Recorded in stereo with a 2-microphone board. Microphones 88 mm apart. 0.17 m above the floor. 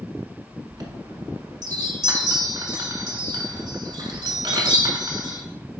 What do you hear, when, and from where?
0.7 s a chime: 50° right (ahead or behind), 0.7 m